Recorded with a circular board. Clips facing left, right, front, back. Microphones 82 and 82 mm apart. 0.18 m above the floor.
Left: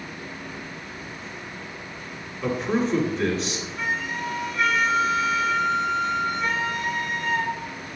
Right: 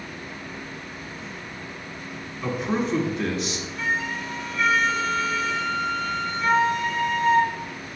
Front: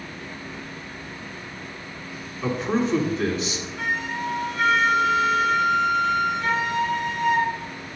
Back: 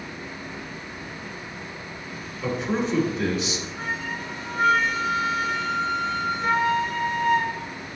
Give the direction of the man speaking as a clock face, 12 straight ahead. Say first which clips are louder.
Left 2 dB, front 2 dB; 12 o'clock.